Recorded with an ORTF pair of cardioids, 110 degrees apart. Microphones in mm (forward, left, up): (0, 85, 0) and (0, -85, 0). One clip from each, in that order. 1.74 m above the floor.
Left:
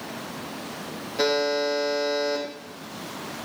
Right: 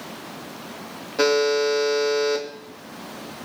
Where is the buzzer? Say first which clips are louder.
Right 4 dB; 35° right, 3.5 m.